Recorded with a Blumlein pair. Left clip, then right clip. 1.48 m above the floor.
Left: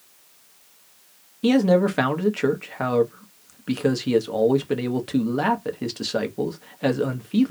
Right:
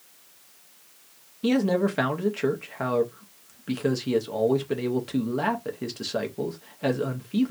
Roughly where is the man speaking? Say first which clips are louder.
Left 5 dB; ahead.